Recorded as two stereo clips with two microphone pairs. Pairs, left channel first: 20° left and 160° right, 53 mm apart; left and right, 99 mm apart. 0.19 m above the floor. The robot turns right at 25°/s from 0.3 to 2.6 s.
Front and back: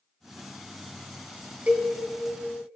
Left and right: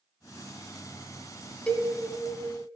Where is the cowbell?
155° left, 0.7 m; by 1.9 s 160° left, 0.7 m.